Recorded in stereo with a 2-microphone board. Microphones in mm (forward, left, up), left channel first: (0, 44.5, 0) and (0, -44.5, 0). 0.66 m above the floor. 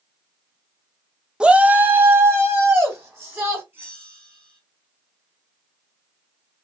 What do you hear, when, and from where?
1.4 s a shout: 10° right (ahead or behind), 0.6 m; by 3.6 s 30° right (ahead or behind), 3 m
3.7 s a bell: 30° right (ahead or behind), 3.5 m